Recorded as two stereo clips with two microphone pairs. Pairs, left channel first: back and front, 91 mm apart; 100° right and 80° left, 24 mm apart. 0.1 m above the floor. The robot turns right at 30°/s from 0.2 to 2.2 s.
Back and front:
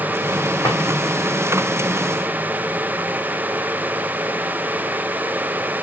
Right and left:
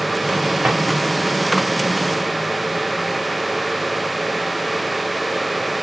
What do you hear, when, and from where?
0.6 s a drawer: 125° left, 3.5 m; by 0.8 s 130° left, 3.5 m